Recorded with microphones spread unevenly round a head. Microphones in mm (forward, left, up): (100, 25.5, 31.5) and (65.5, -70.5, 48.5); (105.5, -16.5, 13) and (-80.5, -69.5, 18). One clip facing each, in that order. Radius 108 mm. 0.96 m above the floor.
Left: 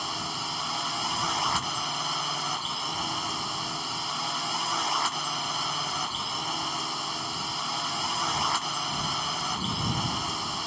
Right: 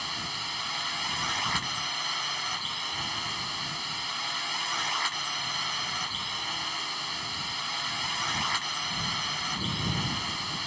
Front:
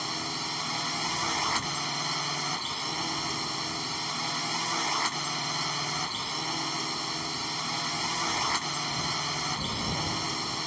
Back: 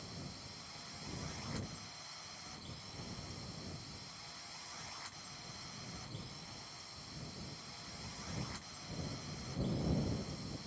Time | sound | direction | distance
0.0 | a drone | 15° left | ?